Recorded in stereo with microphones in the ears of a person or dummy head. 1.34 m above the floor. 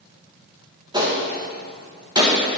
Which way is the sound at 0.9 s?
25° right (ahead or behind).